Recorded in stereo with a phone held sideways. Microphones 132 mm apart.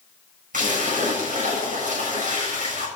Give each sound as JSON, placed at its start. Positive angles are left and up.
{"t": 0.5, "sound": "a splash", "side_deg": -85, "distance_m": 7.0}